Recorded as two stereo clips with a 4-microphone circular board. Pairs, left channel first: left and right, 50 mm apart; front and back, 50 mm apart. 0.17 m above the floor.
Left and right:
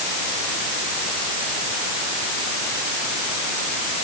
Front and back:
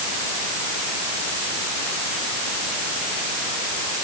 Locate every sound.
Only background noise.